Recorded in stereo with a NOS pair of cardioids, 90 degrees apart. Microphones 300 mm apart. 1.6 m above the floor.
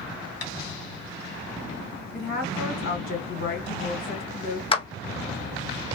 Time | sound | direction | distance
0.4 | tapping | 55° left | 2 m
2.1 | a woman speaking | 50° left | 2 m
4.7 | a clap | 20° left | 0.7 m